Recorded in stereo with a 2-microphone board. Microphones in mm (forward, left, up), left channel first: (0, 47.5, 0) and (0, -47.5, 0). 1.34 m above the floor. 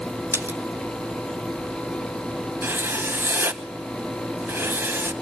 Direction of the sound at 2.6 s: 25° right (ahead or behind).